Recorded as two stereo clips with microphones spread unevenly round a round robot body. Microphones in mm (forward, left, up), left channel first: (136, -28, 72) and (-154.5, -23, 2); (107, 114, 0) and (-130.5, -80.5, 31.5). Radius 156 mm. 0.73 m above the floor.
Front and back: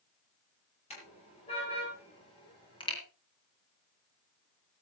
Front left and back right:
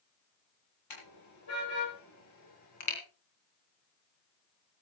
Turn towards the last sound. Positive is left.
turn(degrees=75)